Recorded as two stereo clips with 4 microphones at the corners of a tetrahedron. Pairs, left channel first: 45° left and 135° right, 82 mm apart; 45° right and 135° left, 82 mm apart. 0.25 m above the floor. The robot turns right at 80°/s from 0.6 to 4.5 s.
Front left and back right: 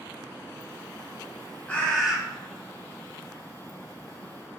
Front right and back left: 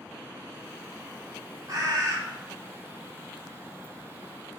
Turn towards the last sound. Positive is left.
turn(degrees=-20)